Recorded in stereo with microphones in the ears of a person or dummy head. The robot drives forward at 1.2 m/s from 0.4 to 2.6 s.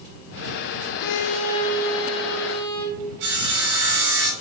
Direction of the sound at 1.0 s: 75° left (ahead or behind).